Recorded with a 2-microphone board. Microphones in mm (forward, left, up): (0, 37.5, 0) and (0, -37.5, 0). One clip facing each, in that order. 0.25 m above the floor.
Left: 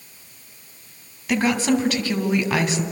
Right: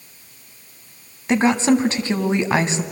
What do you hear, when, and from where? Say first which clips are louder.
1.3 s a woman speaking: right 4 dB; 30° right (ahead or behind), 1.6 m